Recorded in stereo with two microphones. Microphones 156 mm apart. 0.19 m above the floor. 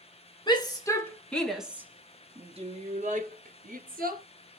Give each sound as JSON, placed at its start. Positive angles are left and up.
{"t": 0.5, "sound": "a shout", "side_deg": 30, "distance_m": 1.9}